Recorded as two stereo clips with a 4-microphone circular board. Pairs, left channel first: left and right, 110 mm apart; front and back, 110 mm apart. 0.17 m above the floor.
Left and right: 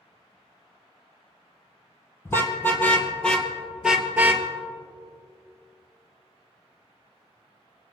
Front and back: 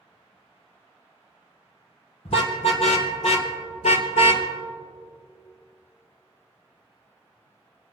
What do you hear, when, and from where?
2.2 s a car horn: 25° left, 3 m; by 4.5 s 25° right, 1.6 m